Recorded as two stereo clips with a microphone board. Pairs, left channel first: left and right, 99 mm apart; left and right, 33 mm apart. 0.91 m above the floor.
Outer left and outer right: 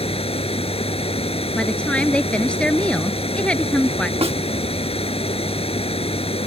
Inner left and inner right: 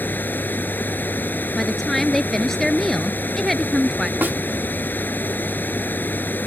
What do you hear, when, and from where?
0.0 s running water: 85° left
1.6 s a woman speaking: 10° left (ahead or behind)
4.2 s a snare drum: 80° right